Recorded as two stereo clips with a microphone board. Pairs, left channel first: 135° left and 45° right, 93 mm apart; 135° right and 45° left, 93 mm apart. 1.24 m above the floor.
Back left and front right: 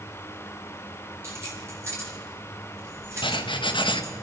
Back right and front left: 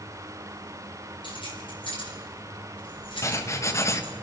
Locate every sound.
1.2 s keys jangling: 105° right, 4.5 m
3.2 s writing: 165° left, 1.0 m